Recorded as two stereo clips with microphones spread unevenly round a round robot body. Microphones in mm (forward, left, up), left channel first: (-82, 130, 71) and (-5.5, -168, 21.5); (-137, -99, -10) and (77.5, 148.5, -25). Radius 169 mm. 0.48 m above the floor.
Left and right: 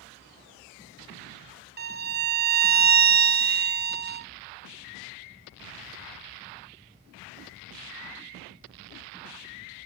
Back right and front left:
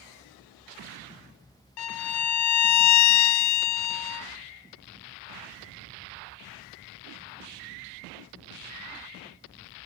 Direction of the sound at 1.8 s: 135° right.